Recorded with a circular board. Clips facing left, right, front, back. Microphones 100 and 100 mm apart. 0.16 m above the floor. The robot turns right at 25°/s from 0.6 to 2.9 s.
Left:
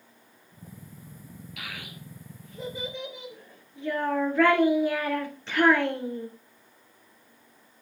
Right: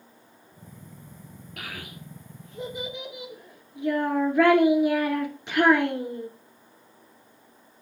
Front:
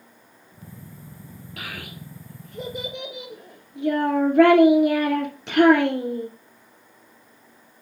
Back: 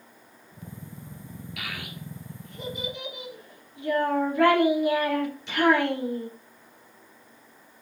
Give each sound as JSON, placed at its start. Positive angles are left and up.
{"t": 1.6, "sound": "a child speaking", "azimuth_deg": -50, "distance_m": 2.0}